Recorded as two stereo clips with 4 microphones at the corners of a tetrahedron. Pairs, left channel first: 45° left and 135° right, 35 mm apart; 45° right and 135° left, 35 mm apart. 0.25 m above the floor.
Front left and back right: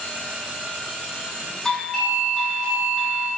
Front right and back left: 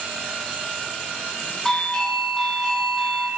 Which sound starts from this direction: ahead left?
A doorbell, at 1.6 s.